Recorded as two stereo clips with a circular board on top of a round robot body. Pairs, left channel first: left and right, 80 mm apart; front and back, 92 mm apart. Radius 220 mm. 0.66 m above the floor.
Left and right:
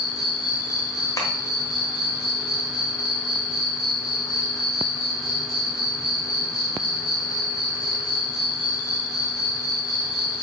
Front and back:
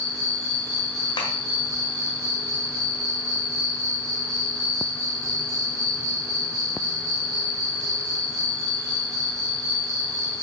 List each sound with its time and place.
0.0 s an insect: 125° left, 1.8 m
1.2 s tapping: 45° left, 1.1 m